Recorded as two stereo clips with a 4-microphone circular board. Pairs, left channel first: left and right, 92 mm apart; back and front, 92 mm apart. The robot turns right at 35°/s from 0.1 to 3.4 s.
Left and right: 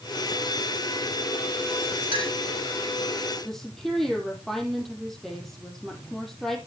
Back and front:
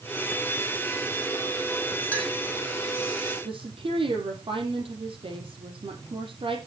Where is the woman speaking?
5° left, 4 m.